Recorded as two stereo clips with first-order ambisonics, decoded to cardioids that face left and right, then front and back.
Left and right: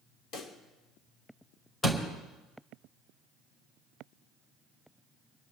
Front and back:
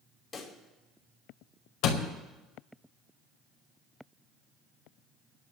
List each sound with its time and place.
0.3 s a pop: 60° left, 2.0 m
1.8 s a door slam: 15° left, 2.5 m